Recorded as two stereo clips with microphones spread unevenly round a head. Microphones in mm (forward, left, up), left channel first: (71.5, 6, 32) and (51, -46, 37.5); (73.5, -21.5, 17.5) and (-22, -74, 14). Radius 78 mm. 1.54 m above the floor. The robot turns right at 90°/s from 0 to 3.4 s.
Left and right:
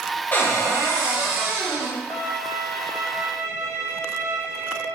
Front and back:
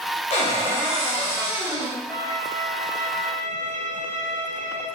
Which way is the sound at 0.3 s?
10° left.